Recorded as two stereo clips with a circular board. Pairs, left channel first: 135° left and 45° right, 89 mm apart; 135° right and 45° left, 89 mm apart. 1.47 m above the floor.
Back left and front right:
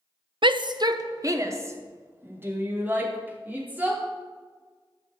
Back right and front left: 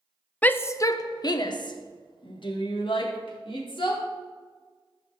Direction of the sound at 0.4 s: 60° right.